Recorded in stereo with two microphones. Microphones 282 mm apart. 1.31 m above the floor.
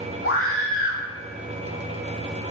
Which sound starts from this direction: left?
A scream, at 0.2 s.